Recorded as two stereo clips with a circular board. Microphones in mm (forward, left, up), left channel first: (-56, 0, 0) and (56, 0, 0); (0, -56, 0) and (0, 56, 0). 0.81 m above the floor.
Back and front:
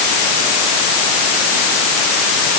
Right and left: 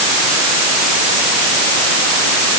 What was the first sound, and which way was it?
Only background noise.